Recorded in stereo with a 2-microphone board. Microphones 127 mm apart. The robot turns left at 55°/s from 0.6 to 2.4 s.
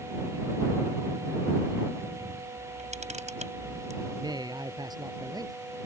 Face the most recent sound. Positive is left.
turn(degrees=-35)  # may be behind; listen again after turning